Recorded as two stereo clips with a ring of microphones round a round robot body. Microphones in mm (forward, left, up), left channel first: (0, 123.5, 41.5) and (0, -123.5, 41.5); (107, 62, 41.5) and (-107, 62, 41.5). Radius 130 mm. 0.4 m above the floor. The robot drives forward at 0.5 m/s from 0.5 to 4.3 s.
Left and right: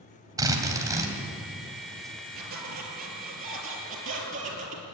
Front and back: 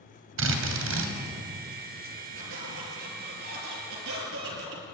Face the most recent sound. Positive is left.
turn(degrees=-150)